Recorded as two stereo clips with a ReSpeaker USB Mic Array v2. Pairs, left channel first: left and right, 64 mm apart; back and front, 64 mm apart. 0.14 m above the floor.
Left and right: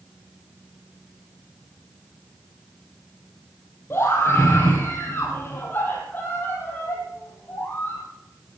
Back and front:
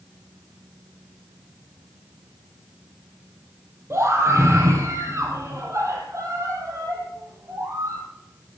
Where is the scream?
40° left, 4.5 m; by 8.0 s 30° left, 7 m.